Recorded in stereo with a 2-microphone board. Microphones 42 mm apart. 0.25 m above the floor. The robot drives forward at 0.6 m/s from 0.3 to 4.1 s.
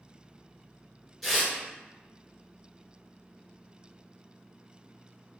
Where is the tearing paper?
10° left (ahead or behind), 1.6 m; by 1.5 s 5° left (ahead or behind), 1.8 m.